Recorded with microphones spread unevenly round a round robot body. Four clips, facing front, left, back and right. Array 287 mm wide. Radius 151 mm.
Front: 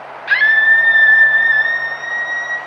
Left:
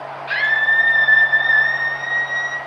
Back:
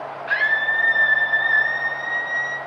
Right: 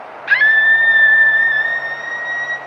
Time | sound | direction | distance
0.3 | a scream | 40° right | 2.5 m